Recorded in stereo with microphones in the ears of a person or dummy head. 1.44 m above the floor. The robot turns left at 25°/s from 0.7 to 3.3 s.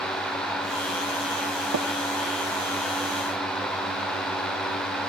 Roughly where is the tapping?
Right.